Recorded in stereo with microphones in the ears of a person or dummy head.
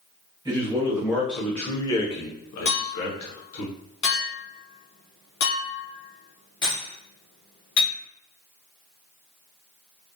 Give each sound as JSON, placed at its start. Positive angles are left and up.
{"t": 0.5, "sound": "a man speaking", "side_deg": -15, "distance_m": 1.1}
{"t": 2.6, "sound": "a clink", "side_deg": 70, "distance_m": 0.9}